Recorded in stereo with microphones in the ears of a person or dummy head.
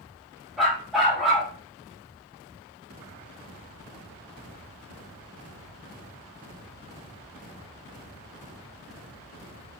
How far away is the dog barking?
About 1.1 m.